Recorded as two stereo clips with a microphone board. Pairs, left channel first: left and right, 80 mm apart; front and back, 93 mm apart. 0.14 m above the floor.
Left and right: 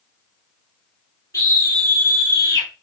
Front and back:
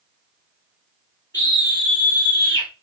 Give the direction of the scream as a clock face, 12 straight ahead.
10 o'clock.